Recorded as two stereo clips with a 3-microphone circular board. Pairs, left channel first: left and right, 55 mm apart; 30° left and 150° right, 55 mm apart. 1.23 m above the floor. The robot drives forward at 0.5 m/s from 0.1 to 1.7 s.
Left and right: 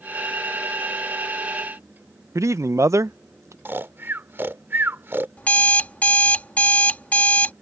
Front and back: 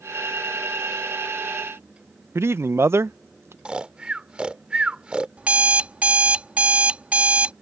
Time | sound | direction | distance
2.4 | a man speaking | 115° right | ?
3.6 | snoring | 90° right | ?
5.4 | an alarm clock | 150° left | ?